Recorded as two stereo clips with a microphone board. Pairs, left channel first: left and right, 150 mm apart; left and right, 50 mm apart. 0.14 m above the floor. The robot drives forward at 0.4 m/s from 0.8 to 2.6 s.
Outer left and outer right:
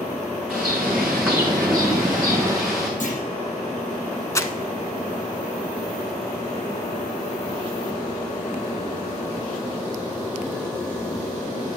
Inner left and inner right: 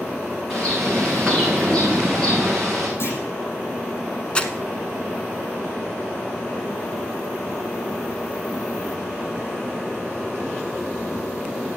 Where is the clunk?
60° left (ahead or behind), 4.5 m.